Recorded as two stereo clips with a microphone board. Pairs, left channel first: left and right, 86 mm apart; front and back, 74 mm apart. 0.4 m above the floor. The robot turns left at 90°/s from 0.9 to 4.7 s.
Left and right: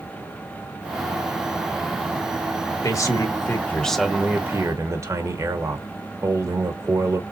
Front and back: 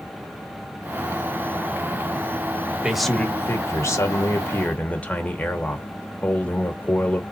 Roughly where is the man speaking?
Left.